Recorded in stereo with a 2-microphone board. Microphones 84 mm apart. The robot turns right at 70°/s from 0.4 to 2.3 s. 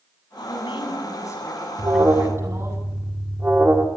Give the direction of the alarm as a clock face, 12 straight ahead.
2 o'clock.